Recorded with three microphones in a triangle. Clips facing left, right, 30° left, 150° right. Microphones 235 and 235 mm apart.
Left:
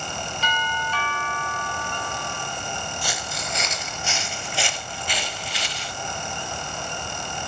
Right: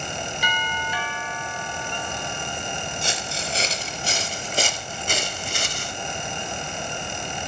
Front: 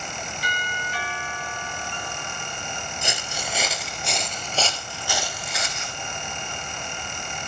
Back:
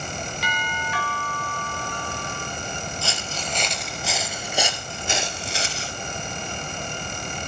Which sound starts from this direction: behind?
A doorbell, at 0.4 s.